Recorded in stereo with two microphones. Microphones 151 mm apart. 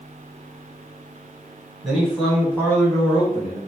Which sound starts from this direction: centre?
A man speaking, at 1.8 s.